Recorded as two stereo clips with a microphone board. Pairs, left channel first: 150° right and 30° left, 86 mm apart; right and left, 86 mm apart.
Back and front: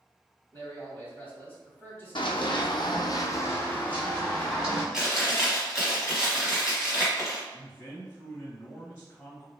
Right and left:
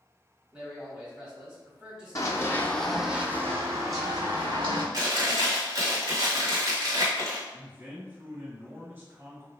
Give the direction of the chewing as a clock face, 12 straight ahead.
8 o'clock.